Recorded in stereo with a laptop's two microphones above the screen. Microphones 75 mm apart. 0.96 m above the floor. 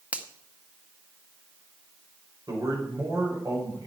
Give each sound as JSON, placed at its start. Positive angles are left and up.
{"t": 0.1, "sound": "a finger snap", "side_deg": -20, "distance_m": 0.8}
{"t": 2.5, "sound": "a man speaking", "side_deg": -55, "distance_m": 5.0}